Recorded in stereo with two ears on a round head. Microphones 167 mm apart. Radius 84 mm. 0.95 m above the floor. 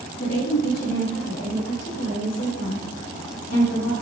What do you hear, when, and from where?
0.2 s a woman speaking: 50° left (ahead or behind), 6 m; by 3.9 s 75° left (ahead or behind), 6 m